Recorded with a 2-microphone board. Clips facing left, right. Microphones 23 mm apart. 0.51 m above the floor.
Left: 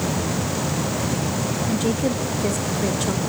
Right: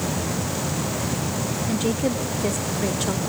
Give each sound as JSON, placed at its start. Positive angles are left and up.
{"t": 1.7, "sound": "a woman speaking", "side_deg": 0, "distance_m": 1.5}